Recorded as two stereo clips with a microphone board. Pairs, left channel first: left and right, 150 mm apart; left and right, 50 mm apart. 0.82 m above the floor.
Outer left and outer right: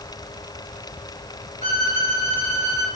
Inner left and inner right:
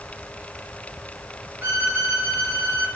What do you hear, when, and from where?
1.6 s a violin: 50° right (ahead or behind), 1.4 m